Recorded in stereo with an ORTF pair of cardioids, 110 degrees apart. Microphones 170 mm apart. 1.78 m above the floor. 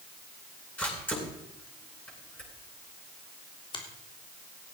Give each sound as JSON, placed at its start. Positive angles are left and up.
{"t": 0.8, "sound": "a camera shutter", "azimuth_deg": 10, "distance_m": 9.5}
{"t": 3.7, "sound": "a finger snap", "azimuth_deg": 30, "distance_m": 3.0}